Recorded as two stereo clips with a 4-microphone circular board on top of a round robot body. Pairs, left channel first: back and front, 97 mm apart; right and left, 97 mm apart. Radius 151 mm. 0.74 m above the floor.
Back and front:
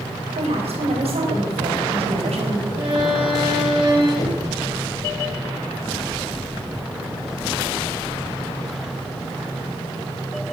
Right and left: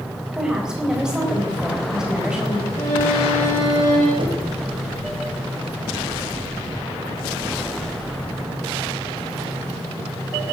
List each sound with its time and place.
0.3 s a woman speaking: 10° left, 4 m
2.8 s a violin: 30° right, 6.5 m
4.2 s knocking: 125° left, 2.5 m